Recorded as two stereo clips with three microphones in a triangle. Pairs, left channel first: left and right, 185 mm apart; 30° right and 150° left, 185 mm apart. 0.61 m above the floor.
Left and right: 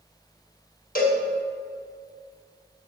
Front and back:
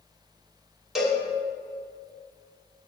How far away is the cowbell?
About 1.1 m.